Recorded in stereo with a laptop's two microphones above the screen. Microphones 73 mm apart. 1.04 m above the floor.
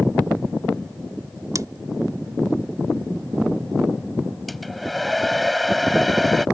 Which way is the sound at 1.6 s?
50° right (ahead or behind).